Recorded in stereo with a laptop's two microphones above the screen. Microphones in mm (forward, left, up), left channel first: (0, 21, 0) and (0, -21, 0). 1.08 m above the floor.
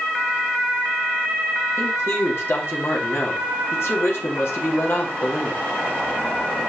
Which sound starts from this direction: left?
A man speaking, at 1.8 s.